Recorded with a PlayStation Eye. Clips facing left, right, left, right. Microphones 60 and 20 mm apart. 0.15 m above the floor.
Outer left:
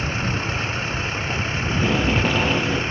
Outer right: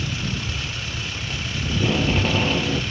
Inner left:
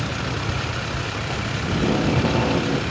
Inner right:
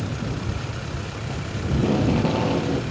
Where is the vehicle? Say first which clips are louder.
Outer left 4 dB, inner left 4 dB; 35° left (ahead or behind); by 2.9 s 30° left (ahead or behind).